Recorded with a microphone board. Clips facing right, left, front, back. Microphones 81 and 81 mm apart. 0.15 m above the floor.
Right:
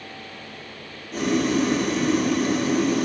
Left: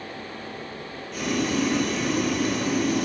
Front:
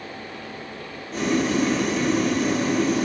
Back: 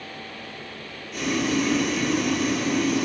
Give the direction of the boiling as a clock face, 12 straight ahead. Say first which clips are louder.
Right 4 dB, front 2 dB; 2 o'clock.